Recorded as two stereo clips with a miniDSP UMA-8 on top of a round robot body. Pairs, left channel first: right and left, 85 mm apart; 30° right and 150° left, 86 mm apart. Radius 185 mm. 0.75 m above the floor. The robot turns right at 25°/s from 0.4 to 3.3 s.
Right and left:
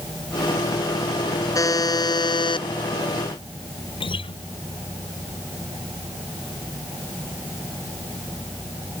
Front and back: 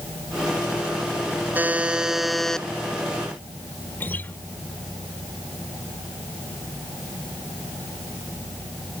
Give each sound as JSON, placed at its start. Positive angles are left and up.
{"t": 1.6, "sound": "a buzzer", "azimuth_deg": -140}
{"t": 4.0, "sound": "a guitar", "azimuth_deg": -100}